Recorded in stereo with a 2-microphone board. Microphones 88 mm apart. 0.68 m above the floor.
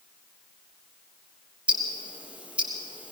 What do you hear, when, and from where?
1.7 s ticking: 15° right (ahead or behind), 3.5 m